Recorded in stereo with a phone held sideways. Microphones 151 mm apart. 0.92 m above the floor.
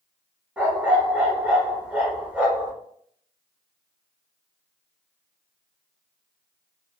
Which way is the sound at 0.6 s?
5° right (ahead or behind).